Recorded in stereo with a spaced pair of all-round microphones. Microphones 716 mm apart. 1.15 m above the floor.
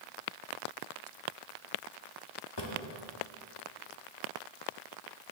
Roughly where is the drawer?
Left.